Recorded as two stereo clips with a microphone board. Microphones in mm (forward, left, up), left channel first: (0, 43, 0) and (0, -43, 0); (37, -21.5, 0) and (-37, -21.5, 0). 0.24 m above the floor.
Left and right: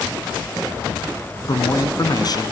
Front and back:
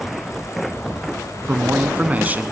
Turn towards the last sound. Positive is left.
turn(degrees=115)